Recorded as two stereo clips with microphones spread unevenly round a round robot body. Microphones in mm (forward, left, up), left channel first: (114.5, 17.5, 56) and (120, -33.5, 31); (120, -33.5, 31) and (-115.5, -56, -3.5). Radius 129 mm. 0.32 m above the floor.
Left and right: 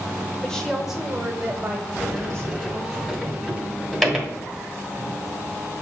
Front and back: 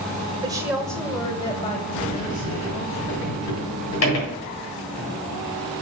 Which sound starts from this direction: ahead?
A sliding door, at 2.0 s.